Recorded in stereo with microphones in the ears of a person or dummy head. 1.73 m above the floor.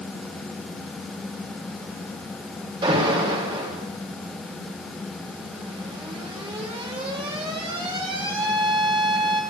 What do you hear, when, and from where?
2.8 s an alarm: 30° right (ahead or behind), 6.5 m